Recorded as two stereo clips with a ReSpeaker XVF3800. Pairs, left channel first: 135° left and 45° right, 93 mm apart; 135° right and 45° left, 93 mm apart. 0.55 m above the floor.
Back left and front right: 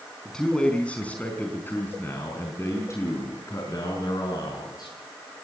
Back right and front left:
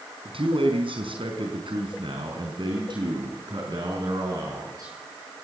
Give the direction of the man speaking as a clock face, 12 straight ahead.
10 o'clock.